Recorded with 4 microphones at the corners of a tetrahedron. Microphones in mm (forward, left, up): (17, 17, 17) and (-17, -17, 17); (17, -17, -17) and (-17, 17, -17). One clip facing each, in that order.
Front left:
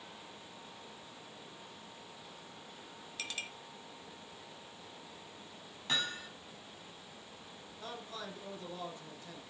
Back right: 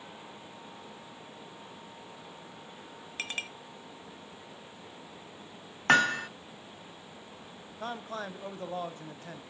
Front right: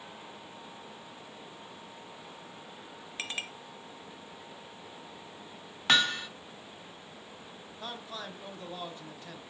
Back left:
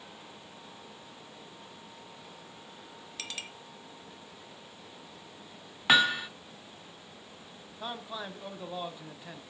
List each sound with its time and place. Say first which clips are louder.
3.2 s a clink: back right 6 dB, front right 4 dB; 100° right, 1.4 m
5.9 s hammering: back right 14 dB, back left 3 dB; 145° right, 0.5 m
7.8 s a man speaking: back right 8 dB, back left 3 dB; 150° right, 1.4 m